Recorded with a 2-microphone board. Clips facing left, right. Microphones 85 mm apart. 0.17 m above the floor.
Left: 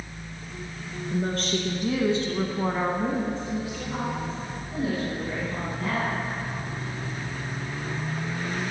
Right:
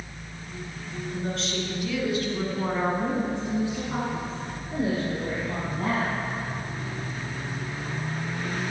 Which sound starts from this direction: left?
A woman speaking, at 1.1 s.